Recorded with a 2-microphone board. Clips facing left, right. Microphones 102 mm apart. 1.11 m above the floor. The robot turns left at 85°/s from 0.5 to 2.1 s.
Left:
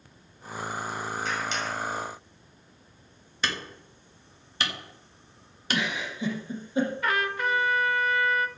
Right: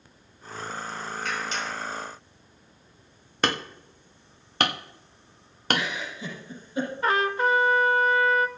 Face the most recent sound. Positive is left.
turn(degrees=-30)  # may be behind; listen again after turning